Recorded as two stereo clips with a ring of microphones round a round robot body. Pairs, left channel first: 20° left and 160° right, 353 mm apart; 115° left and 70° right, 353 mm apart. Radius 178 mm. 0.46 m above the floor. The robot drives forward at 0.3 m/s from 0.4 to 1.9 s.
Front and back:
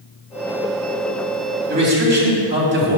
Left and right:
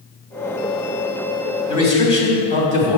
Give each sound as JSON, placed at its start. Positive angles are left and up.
{"t": 1.7, "sound": "a man speaking", "azimuth_deg": 145, "distance_m": 3.0}